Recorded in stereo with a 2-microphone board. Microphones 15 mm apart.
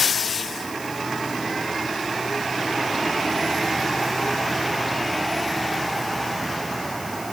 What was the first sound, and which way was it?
Only background noise.